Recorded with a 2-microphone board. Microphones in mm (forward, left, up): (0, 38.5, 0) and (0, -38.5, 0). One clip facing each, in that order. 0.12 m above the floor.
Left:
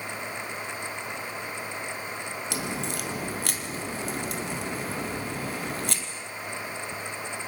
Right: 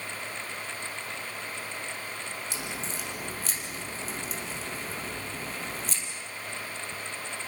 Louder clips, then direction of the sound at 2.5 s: Left 5 dB; 65° left (ahead or behind).